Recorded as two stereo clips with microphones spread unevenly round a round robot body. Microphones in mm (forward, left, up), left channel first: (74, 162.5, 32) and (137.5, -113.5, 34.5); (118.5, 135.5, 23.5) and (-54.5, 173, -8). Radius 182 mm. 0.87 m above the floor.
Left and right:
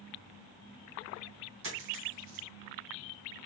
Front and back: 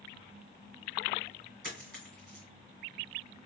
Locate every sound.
1.6 s a dropped coin: 125° right, 2.5 m